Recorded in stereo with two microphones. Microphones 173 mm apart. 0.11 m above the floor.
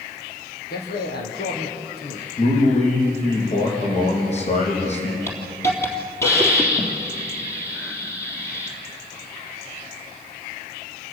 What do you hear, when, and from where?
0.7 s a man speaking: 70° left (ahead or behind), 4 m
2.4 s a man speaking: 40° left (ahead or behind), 5 m
5.3 s a hiss: 15° left (ahead or behind), 3.5 m